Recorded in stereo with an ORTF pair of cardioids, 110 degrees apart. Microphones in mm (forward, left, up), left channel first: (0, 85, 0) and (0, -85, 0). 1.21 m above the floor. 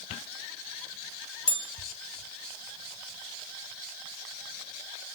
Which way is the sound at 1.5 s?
35° left.